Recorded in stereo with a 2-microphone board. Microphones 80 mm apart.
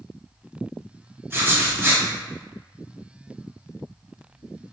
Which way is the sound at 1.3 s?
30° right (ahead or behind).